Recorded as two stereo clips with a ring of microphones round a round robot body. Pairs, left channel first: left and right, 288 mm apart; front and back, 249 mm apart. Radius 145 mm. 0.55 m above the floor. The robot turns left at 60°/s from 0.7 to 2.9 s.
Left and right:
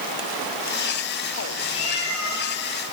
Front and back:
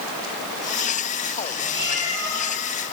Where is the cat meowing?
140° left, 9.5 m; by 2.4 s 95° left, 9.5 m.